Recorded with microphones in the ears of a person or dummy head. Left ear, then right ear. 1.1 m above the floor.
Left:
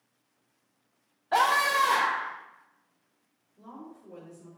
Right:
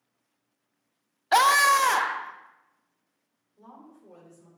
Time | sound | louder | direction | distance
1.3 | a scream | right 5 dB | 70° right (ahead or behind) | 0.6 m
3.6 | a woman speaking | left 3 dB | 40° right (ahead or behind) | 2.5 m